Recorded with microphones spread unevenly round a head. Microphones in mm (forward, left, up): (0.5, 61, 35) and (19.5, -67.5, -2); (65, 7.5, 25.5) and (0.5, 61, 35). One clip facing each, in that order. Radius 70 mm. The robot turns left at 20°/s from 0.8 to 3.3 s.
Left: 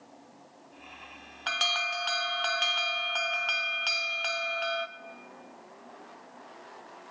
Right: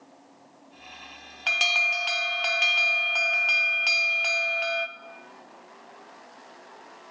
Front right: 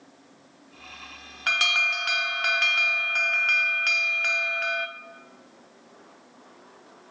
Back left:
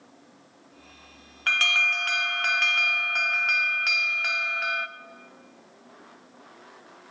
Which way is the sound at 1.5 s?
90° right.